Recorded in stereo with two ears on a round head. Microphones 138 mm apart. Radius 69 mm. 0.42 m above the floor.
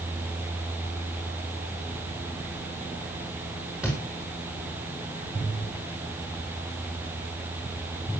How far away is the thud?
About 7.5 m.